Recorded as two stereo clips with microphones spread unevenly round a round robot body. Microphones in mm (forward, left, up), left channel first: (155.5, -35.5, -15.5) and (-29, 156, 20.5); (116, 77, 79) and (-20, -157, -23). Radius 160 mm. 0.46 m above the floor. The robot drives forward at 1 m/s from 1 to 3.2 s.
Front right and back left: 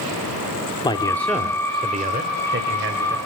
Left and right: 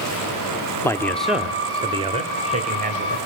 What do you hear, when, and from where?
0.8 s a man speaking: 65° right, 0.9 m; by 3.2 s 170° right, 2 m